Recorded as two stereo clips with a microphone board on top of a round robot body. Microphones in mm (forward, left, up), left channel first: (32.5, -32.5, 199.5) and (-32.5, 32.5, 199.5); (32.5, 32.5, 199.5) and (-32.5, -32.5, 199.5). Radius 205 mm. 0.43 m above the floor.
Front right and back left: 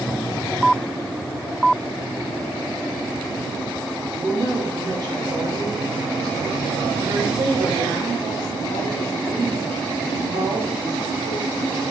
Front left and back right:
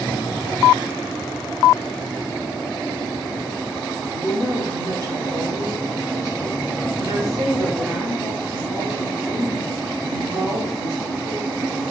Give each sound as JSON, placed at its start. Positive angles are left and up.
{"t": 4.1, "sound": "a woman speaking", "azimuth_deg": 175, "distance_m": 3.0}